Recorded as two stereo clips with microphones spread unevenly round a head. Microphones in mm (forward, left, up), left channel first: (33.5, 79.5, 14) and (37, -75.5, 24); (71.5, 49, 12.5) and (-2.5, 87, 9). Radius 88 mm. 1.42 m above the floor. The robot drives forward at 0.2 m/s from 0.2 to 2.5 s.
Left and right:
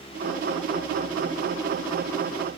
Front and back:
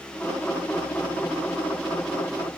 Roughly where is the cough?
I don't hear a cough.